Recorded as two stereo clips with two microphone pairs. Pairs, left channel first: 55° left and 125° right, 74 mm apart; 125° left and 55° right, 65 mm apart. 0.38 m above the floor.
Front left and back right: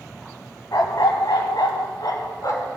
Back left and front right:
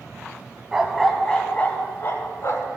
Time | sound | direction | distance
0.7 | a dog barking | 25° left | 0.7 m